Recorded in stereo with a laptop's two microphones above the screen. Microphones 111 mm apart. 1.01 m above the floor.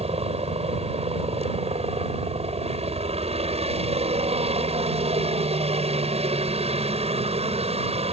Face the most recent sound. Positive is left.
turn(degrees=-65)  # may be behind; listen again after turning